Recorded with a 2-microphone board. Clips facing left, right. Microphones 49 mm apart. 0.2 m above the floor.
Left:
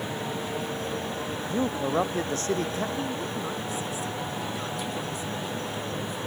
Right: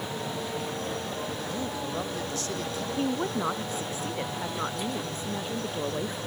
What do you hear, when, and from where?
1.5 s a man speaking: 35° left (ahead or behind); by 2.9 s 40° left (ahead or behind)
3.0 s a woman speaking: 35° right (ahead or behind)